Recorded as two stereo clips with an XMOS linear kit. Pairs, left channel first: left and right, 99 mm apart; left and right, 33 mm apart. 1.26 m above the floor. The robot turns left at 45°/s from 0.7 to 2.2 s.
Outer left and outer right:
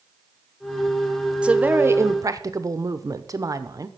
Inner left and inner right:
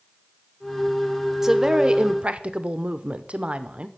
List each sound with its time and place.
1.4 s a woman speaking: 15° right, 0.7 m; by 3.9 s 50° right, 0.7 m